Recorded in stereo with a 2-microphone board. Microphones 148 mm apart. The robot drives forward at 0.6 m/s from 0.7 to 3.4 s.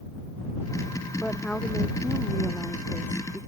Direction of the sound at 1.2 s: 10° left (ahead or behind).